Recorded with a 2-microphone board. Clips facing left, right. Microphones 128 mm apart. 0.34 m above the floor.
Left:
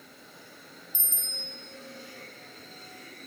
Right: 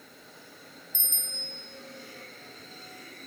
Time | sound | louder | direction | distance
0.9 | a bicycle bell | even | 70° right (ahead or behind) | 3 m